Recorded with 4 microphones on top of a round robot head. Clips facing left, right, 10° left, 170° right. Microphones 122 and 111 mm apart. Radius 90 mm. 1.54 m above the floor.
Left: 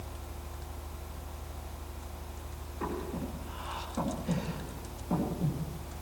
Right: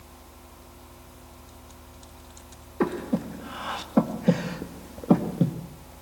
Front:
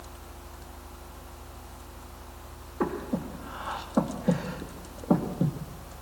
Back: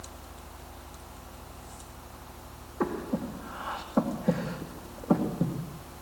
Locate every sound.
2.8 s breathing: 80° right, 2.5 m